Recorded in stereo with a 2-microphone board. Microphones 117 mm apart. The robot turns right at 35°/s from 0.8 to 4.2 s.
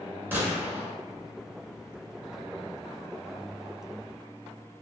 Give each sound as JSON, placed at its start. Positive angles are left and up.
{"t": 0.3, "sound": "a gunshot", "side_deg": -20, "distance_m": 0.8}